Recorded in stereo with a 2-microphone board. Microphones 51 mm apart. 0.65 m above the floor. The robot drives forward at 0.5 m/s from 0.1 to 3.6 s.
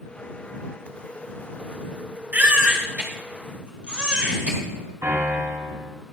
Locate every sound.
2.3 s a baby crying: 40° right (ahead or behind), 1.4 m; by 4.6 s 30° right (ahead or behind), 1.9 m
5.0 s a piano: 80° right, 5.5 m